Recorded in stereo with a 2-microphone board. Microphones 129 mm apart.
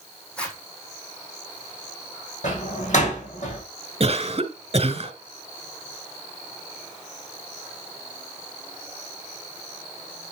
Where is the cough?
50° right (ahead or behind), 2.5 m.